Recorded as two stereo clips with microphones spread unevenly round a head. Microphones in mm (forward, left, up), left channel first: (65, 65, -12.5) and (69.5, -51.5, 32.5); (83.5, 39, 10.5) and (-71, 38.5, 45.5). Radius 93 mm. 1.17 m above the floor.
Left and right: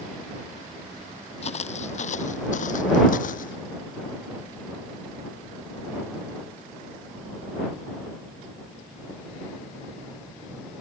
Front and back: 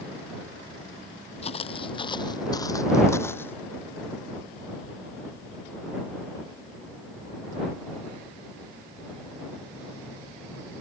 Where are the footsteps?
55° left; by 3.5 s 80° left.